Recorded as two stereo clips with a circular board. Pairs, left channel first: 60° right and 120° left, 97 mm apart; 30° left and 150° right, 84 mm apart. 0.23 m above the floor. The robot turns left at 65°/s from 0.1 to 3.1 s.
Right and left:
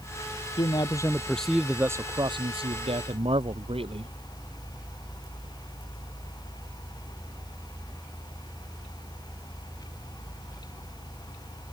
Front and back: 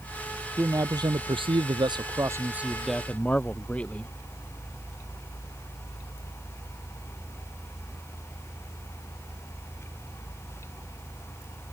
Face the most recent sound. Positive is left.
turn(degrees=105)